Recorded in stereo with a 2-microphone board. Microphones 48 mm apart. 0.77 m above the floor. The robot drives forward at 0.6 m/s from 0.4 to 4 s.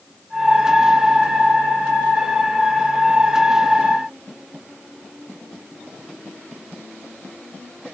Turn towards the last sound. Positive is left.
No sound to turn to.